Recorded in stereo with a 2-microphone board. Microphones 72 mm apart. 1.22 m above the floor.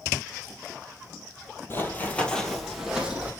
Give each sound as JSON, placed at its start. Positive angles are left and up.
{"t": 1.7, "sound": "running footsteps", "side_deg": 30, "distance_m": 1.4}